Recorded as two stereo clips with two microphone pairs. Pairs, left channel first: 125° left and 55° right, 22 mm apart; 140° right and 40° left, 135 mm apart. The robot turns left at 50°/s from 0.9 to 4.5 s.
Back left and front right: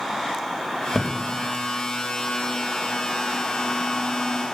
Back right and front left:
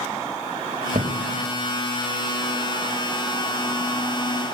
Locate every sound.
0.9 s a thud: 40° left, 2.5 m; by 1.2 s 25° left, 2.5 m